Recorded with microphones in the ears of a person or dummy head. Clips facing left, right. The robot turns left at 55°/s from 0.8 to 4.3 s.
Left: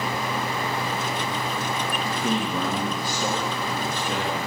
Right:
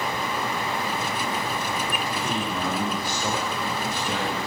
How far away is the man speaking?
About 2.0 m.